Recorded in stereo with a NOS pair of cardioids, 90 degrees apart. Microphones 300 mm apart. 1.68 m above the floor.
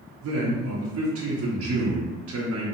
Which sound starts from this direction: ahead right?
A man speaking, at 0.2 s.